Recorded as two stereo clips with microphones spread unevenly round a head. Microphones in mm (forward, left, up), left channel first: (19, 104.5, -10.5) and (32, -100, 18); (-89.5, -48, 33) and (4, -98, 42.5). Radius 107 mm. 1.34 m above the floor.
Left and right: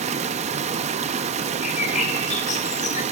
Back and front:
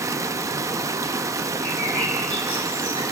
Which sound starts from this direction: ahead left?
A bird, at 1.6 s.